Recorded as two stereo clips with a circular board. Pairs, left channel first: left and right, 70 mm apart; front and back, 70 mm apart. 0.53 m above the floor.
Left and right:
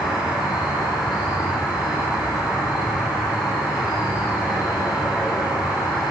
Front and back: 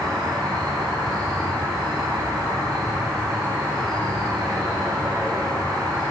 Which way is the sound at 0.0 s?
175° right.